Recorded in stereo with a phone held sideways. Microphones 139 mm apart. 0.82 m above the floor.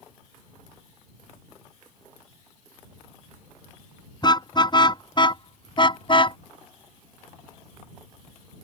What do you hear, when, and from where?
4.2 s a car horn: 35° left (ahead or behind); by 6.4 s 40° left (ahead or behind)